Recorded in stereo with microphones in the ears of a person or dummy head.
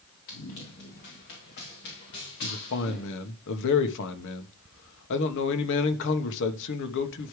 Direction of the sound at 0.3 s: 55° left (ahead or behind).